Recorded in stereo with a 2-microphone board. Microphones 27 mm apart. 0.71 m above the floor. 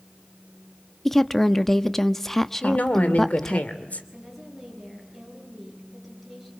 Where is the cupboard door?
No cupboard door in this recording.